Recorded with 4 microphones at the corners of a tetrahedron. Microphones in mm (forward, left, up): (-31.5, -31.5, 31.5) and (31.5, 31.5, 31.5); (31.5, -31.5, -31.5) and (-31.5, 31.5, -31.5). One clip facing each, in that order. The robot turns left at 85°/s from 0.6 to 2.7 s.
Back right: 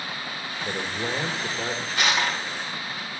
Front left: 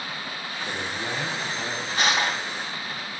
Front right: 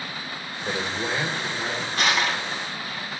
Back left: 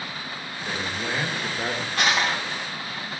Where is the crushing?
105° left, 4.5 m; by 2.4 s 65° left, 4.5 m.